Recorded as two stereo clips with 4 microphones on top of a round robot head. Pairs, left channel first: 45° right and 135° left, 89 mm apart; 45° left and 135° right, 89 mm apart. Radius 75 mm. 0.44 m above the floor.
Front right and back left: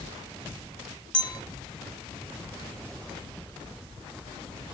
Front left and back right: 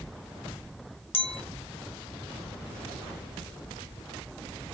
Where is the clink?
30° left, 1.8 m.